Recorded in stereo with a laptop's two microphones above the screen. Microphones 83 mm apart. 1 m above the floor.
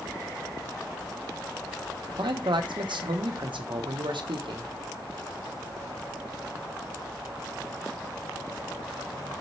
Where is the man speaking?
80° right, 1.1 m.